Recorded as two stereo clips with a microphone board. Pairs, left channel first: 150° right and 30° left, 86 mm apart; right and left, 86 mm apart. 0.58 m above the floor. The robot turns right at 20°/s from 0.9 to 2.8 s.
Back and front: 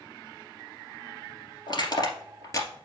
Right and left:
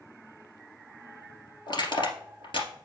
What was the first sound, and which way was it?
Crushing, 115° right.